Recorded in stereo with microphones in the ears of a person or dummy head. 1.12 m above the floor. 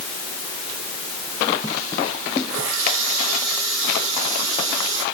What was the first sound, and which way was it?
A running tap, 85° right.